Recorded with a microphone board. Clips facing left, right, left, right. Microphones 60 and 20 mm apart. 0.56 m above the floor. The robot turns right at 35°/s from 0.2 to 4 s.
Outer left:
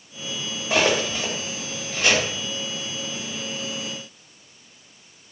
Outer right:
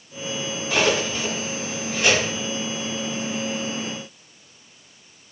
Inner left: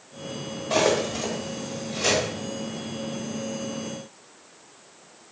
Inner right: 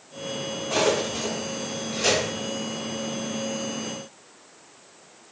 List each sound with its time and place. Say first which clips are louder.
0.7 s cutlery clinking: outer left 1 dB, inner left 1 dB; 30° left (ahead or behind), 1.0 m; by 2.3 s 25° right (ahead or behind), 1.0 m